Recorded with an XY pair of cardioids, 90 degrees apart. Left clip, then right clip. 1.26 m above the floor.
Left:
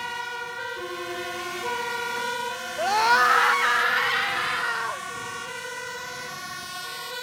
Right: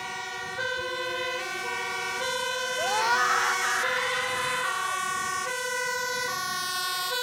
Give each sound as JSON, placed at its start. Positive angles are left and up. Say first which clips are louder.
{"t": 2.8, "sound": "a scream", "louder": "left 6 dB", "azimuth_deg": 40}